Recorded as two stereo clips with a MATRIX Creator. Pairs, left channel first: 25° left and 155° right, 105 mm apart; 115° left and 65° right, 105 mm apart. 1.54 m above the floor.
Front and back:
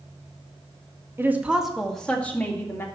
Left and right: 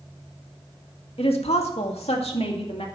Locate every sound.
1.2 s a woman speaking: 135° left, 1.7 m; by 2.9 s 90° left, 3 m